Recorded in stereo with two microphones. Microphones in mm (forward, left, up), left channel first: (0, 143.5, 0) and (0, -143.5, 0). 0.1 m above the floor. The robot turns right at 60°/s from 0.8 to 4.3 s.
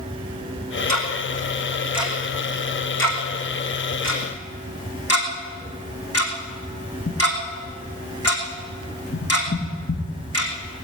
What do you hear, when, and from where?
0.9 s ticking: 75° right (ahead or behind), 3 m; by 10.8 s 55° left (ahead or behind), 3 m